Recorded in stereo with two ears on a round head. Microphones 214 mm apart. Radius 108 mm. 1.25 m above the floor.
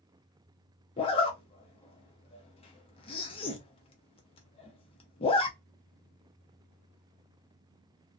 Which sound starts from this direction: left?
A zipper, at 1.0 s.